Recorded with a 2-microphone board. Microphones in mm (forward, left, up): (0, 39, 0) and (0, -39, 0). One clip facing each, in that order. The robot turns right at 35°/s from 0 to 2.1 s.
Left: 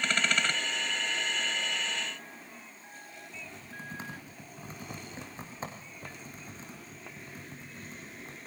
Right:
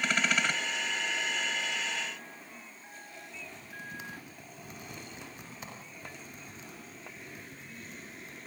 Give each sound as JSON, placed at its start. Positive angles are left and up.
{"t": 3.3, "sound": "typing on a keyboard", "side_deg": 35, "distance_m": 4.0}